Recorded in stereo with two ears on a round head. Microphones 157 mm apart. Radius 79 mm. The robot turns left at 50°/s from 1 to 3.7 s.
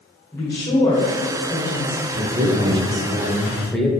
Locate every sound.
0.3 s a woman speaking: 155° left, 1.9 m; by 2.0 s 100° left, 1.9 m
2.1 s a man speaking: 105° right, 1.2 m; by 3.9 s 175° left, 1.2 m